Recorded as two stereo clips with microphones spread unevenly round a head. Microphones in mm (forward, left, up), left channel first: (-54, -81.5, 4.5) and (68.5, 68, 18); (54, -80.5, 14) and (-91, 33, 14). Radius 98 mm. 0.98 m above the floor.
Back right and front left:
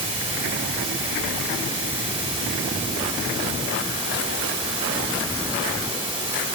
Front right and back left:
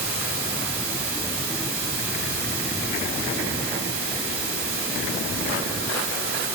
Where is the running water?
105° left, 1.2 m.